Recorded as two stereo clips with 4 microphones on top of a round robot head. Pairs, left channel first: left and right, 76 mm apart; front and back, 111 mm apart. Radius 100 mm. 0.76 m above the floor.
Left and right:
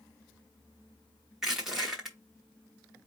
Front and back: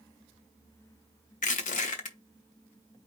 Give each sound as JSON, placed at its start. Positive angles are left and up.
{"t": 1.4, "sound": "crushing", "azimuth_deg": -5, "distance_m": 0.8}